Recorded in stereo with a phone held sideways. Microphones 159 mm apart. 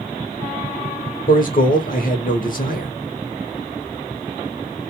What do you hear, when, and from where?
1.3 s a man speaking: 60° left (ahead or behind), 0.8 m